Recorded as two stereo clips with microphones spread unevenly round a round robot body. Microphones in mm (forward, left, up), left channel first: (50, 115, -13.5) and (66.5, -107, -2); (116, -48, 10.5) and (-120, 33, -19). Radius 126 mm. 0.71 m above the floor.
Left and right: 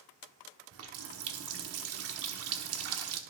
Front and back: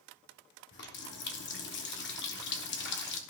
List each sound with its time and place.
0.7 s a running tap: 70° right, 1.0 m